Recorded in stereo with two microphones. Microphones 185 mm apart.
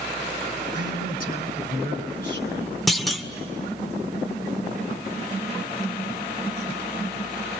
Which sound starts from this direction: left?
A man speaking, at 0.7 s.